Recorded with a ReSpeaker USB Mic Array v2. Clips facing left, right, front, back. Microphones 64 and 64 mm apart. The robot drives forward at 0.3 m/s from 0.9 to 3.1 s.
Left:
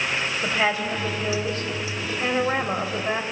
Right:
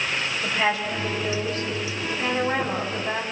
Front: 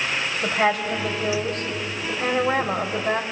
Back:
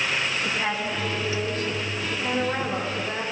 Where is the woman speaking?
25° left, 4.5 m; by 3.2 s 30° left, 4 m.